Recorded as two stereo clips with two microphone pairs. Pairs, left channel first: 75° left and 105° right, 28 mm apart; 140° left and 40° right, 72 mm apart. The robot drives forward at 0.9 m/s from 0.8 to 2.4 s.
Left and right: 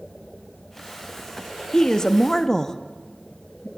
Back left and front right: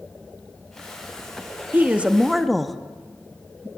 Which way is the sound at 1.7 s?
15° left.